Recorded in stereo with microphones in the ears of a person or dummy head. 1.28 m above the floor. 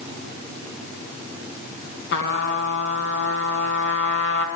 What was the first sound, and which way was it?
A trumpet, 75° left (ahead or behind).